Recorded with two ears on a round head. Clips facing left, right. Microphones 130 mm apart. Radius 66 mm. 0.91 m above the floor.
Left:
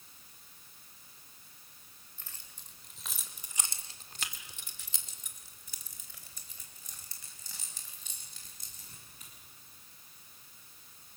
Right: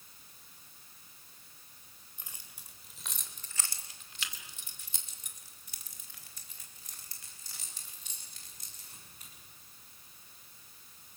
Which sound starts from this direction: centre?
Keys jangling, at 2.2 s.